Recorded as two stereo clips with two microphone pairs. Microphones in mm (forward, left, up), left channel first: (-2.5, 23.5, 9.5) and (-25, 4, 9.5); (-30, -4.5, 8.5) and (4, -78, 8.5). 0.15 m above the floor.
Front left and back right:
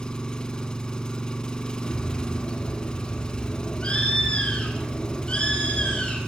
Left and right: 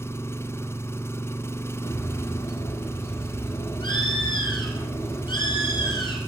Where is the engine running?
80° left, 0.9 m.